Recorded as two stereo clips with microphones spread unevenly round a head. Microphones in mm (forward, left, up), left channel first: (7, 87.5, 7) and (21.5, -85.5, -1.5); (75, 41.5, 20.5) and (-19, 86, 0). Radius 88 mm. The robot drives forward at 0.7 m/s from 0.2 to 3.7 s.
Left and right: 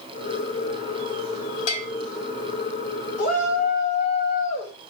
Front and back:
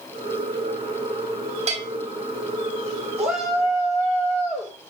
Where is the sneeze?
No sneeze in this recording.